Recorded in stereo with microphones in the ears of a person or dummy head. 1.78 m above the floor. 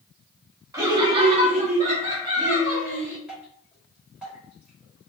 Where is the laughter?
20° right (ahead or behind), 0.8 m.